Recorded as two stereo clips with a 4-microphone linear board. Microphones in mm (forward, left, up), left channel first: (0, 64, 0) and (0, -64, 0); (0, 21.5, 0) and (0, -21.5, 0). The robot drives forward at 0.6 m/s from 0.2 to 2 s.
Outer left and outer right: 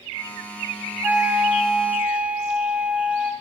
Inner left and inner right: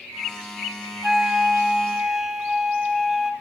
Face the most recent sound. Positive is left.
turn(degrees=-10)  # may be behind; listen again after turning